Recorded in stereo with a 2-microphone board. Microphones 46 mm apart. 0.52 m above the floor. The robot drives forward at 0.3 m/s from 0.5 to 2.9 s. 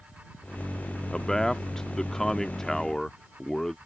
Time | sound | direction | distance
1.1 | a man speaking | 10° left (ahead or behind) | ?